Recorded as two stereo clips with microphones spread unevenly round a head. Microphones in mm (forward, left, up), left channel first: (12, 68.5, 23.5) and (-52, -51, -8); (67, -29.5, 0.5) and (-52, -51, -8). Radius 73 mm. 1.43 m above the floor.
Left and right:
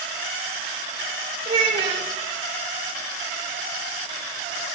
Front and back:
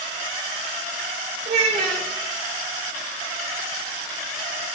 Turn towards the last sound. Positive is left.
turn(degrees=-135)